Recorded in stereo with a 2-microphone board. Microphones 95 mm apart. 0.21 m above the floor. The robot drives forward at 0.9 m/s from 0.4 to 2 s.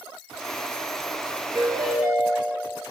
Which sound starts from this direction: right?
A ringtone, at 1.6 s.